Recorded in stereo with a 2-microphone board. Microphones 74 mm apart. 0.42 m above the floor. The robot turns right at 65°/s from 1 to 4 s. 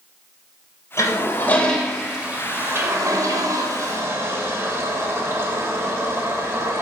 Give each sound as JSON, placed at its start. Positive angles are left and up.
{"t": 1.0, "sound": "a toilet flushing", "side_deg": 45, "distance_m": 1.9}